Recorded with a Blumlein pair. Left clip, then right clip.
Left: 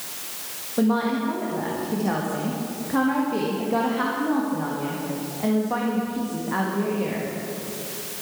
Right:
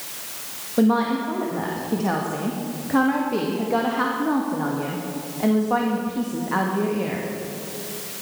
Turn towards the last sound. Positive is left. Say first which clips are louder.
# right 3 dB
turn(degrees=-10)